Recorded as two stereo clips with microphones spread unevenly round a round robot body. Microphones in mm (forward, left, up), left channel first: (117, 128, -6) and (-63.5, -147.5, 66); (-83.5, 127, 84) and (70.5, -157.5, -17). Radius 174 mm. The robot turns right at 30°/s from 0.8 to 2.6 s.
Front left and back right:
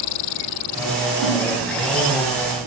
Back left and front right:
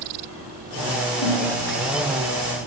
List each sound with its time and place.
1.2 s a snare drum: 150° left, 1.1 m; by 1.4 s 155° left, 1.1 m